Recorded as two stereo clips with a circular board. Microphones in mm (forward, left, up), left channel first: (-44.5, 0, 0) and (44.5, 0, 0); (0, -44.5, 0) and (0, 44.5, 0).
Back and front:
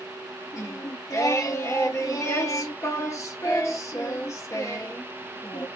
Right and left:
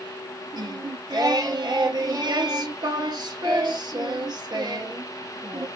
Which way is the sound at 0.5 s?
125° left.